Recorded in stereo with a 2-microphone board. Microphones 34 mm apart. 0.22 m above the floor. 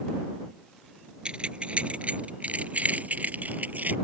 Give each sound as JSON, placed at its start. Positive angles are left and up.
{"t": 1.2, "sound": "keys jangling", "side_deg": -35}